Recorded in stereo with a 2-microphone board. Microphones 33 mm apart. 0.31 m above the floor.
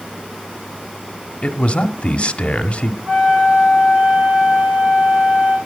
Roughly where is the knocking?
No knocking in this recording.